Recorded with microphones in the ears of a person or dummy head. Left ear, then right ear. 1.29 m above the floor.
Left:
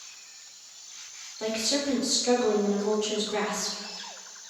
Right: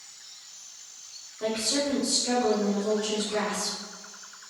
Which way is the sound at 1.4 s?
40° left (ahead or behind).